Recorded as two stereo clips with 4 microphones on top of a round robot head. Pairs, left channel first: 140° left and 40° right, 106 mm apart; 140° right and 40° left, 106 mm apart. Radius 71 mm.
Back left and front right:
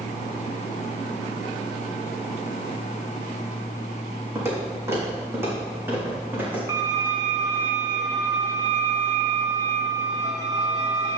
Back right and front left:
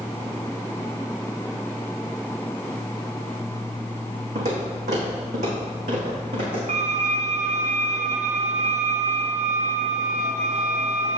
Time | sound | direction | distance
4.3 | footsteps | 25° left | 4 m
6.7 | a violin | 25° left | 1.3 m